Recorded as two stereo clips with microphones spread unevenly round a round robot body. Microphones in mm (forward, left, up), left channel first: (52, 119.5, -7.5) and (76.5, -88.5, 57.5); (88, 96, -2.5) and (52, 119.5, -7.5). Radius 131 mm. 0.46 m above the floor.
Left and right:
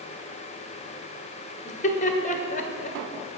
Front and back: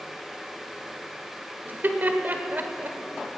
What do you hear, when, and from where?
1.6 s laughter: 125° left, 1.4 m